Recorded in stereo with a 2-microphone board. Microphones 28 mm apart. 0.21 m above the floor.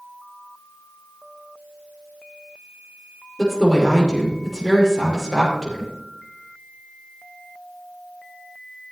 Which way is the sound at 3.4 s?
10° right (ahead or behind).